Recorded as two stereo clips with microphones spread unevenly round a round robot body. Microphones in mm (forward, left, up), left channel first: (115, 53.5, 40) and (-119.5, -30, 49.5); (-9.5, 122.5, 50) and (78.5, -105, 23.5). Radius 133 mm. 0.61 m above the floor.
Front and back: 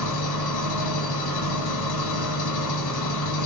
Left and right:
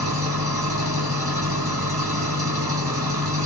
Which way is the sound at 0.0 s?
10° left.